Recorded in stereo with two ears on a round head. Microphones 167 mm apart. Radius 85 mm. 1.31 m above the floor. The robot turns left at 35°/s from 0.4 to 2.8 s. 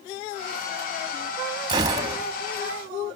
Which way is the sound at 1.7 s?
25° right (ahead or behind).